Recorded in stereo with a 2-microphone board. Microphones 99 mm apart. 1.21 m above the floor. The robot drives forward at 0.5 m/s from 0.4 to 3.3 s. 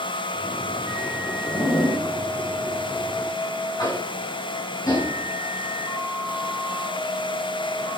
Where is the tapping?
40° left (ahead or behind), 4.5 m.